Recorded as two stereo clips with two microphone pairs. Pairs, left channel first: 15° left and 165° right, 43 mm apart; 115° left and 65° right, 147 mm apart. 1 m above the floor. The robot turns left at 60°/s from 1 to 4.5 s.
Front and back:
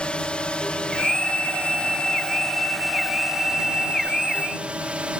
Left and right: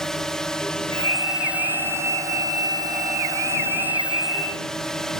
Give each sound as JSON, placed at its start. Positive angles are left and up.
{"t": 0.0, "sound": "a drone", "azimuth_deg": 30}